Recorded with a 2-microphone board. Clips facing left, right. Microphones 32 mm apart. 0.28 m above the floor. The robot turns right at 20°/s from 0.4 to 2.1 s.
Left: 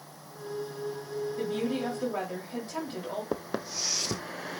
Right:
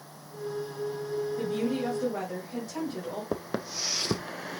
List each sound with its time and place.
1.4 s a woman speaking: 20° left (ahead or behind), 1.8 m; by 3.2 s 25° left (ahead or behind), 1.8 m
3.3 s footsteps: 10° left (ahead or behind), 0.6 m; by 4.6 s 50° right (ahead or behind), 0.7 m